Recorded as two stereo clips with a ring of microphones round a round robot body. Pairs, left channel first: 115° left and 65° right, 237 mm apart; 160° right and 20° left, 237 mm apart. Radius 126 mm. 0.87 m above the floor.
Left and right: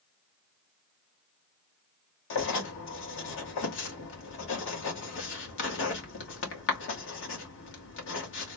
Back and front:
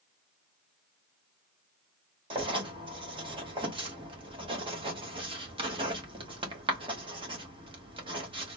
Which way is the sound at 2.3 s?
90° left.